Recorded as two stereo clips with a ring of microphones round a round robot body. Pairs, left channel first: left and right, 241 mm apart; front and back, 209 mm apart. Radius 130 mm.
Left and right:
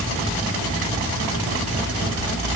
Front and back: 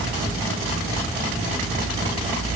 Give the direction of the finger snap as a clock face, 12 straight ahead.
I don't hear a finger snap.